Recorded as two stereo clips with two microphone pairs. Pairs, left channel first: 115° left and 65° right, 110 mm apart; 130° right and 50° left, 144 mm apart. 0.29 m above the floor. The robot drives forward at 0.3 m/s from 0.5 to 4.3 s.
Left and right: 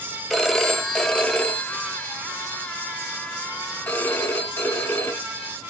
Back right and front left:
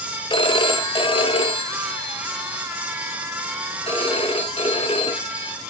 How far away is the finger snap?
I don't hear a finger snap.